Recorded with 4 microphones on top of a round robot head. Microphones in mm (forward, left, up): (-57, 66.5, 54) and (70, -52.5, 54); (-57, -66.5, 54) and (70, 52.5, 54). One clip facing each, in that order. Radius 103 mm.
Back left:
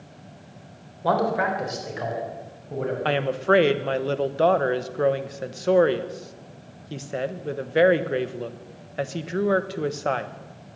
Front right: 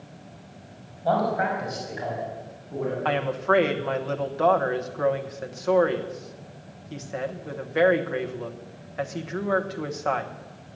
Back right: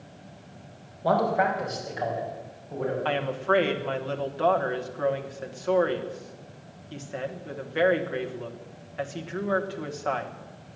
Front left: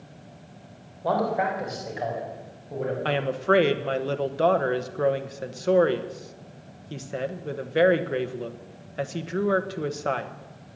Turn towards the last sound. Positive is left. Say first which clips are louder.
# back left 3 dB, front left 5 dB
turn(degrees=85)